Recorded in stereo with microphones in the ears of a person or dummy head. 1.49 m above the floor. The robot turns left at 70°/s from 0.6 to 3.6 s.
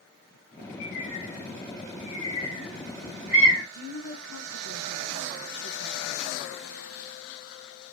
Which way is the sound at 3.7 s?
45° left (ahead or behind).